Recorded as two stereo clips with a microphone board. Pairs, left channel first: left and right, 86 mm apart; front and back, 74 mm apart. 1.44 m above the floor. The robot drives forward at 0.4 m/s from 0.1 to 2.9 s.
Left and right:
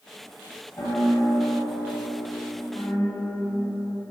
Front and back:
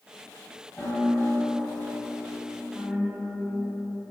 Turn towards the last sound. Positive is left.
turn(degrees=95)